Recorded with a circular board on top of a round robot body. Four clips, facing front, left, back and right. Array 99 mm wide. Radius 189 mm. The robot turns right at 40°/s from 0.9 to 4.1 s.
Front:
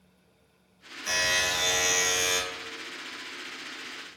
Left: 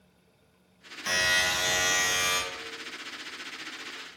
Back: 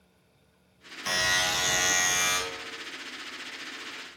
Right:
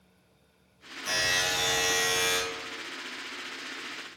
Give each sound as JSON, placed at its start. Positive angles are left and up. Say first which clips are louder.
{"t": 1.1, "sound": "a buzzer", "louder": "left 2 dB, back 1 dB", "azimuth_deg": 155, "distance_m": 2.0}